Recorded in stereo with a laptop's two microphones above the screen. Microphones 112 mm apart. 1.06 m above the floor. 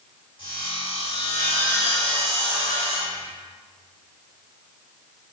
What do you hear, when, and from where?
0.4 s sawing: 50° left (ahead or behind), 2.5 m